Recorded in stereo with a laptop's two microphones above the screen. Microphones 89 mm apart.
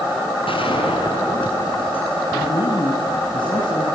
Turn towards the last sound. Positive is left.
turn(degrees=60)  # may be behind; listen again after turning